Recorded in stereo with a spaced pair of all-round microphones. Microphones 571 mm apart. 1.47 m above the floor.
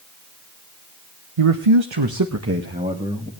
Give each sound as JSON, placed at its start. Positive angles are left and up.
{"t": 1.4, "sound": "a man speaking", "side_deg": -80, "distance_m": 1.2}